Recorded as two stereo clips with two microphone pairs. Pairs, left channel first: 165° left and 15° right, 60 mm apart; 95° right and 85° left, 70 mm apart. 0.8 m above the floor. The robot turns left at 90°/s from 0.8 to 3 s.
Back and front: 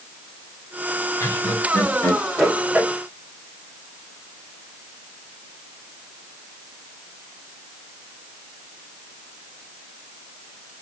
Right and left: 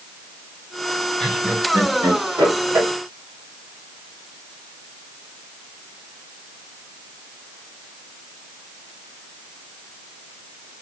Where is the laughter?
175° right, 1.8 m; by 2.9 s 35° left, 1.8 m.